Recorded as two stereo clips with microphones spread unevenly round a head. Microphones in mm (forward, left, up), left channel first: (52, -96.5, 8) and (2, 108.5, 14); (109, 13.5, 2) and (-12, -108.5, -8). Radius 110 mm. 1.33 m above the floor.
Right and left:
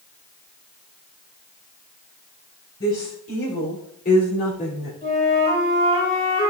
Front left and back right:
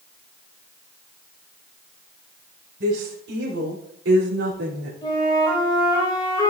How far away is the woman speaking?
About 3.5 m.